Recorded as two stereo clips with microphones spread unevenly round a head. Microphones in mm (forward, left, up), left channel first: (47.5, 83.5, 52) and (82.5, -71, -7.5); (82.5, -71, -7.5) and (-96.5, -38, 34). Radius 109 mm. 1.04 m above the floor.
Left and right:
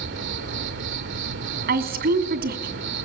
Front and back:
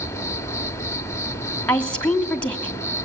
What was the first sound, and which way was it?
An insect, 90° right.